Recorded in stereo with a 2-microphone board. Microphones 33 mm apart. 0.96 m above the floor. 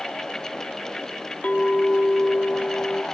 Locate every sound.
1.4 s a clink: 40° left (ahead or behind), 0.8 m